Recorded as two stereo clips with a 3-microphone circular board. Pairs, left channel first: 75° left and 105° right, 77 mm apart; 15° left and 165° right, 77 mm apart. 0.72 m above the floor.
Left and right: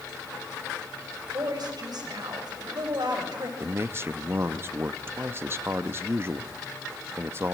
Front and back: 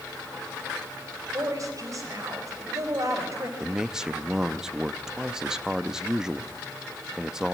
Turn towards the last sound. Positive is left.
turn(degrees=-90)